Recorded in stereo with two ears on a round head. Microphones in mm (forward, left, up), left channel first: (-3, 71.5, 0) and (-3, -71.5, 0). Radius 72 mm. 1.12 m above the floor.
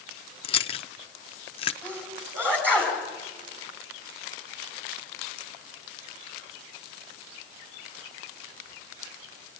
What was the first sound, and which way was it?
Chewing, 35° left (ahead or behind).